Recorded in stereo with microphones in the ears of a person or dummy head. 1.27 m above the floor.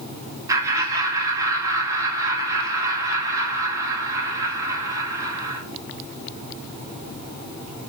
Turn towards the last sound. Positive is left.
turn(degrees=-20)  # may be behind; listen again after turning